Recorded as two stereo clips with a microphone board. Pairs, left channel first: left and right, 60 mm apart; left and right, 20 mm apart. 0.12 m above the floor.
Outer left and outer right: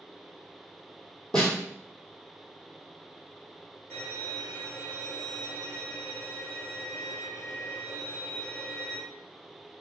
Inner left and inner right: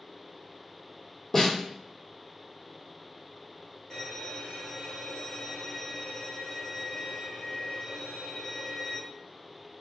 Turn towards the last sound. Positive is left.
turn(degrees=40)  # may be behind; listen again after turning